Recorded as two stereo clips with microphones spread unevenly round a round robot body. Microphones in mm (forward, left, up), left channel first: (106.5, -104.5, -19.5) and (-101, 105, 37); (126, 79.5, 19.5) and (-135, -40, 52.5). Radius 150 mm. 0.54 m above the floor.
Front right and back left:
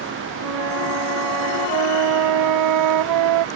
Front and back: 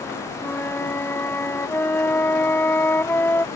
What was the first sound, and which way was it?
A flute, 110° left.